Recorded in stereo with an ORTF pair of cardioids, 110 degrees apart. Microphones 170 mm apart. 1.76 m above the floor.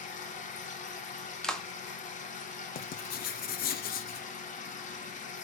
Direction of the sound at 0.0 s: 50° left.